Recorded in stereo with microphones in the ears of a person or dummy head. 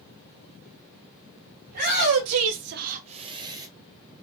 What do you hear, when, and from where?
1.7 s a shout: 40° right (ahead or behind), 0.9 m; by 3.7 s 20° right (ahead or behind), 1.2 m